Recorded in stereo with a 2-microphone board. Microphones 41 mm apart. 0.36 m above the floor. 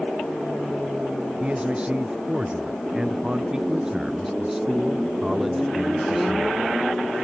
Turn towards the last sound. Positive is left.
turn(degrees=0)  # may be behind; listen again after turning